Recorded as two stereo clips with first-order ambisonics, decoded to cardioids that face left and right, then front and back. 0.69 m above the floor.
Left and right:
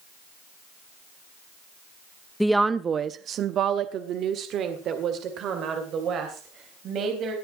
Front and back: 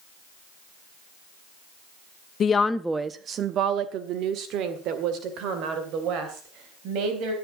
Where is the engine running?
No engine running in this recording.